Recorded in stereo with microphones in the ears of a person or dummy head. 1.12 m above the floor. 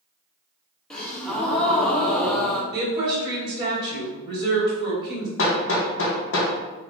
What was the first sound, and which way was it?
A gasp, 5° left (ahead or behind).